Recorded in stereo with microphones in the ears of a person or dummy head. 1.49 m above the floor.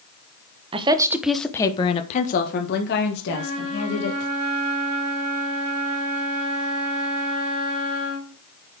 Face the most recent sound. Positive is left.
turn(degrees=-30)  # may be behind; listen again after turning